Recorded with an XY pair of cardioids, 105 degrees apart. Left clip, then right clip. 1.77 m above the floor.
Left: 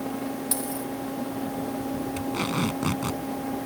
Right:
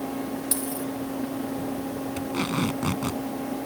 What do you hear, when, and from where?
0.5 s a dropped coin: 10° right
2.2 s tape being pulled: straight ahead